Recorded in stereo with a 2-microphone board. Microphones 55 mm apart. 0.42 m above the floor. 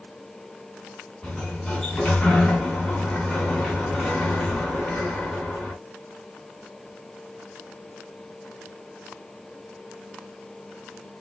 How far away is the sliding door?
About 2.5 m.